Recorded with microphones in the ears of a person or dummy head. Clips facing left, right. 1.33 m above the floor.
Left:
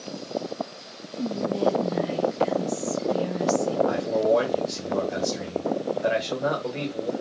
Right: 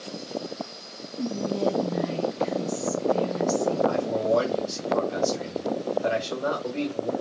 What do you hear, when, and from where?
1.2 s whispering: 5° left (ahead or behind), 1.1 m
3.9 s a man speaking: 20° left (ahead or behind), 1.7 m